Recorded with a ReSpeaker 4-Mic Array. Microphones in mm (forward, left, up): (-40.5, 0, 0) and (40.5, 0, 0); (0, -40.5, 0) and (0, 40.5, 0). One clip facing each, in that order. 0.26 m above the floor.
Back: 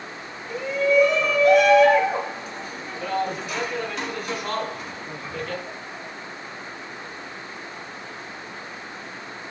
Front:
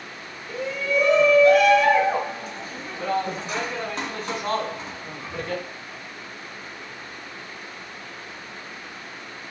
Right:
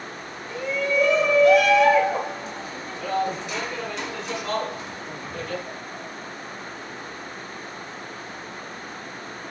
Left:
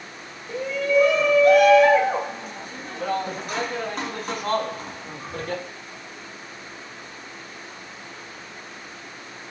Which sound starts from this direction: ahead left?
A shout, at 0.5 s.